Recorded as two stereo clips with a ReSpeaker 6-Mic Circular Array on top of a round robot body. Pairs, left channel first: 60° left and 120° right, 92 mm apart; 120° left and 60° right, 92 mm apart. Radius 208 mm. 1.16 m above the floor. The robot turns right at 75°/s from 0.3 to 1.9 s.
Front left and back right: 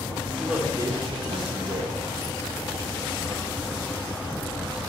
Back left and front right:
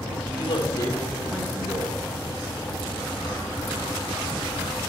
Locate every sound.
0.4 s a man speaking: 145° left, 1.3 m; by 2.0 s 100° right, 1.3 m